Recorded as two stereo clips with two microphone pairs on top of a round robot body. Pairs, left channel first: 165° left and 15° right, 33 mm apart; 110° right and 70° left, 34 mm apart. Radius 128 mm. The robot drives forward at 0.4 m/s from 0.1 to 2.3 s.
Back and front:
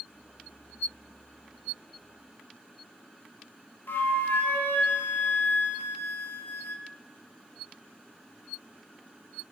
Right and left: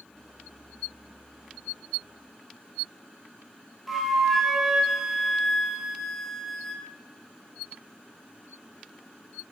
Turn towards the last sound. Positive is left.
turn(degrees=165)